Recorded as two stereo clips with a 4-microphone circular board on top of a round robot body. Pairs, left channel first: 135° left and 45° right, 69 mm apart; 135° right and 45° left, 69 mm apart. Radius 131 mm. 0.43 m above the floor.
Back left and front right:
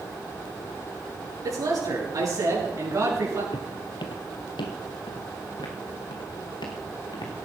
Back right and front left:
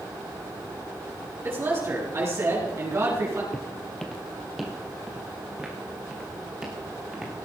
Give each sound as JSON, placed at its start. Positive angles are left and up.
{"t": 1.4, "sound": "a man speaking", "azimuth_deg": -10, "distance_m": 7.0}
{"t": 3.5, "sound": "footsteps", "azimuth_deg": 145, "distance_m": 0.8}